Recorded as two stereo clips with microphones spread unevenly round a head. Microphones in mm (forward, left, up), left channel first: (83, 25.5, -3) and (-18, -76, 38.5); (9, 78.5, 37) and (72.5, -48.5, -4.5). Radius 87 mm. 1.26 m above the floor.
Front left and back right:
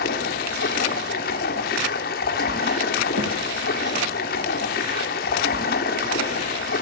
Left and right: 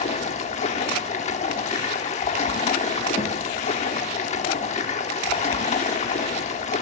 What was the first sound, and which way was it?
Running water, 75° left.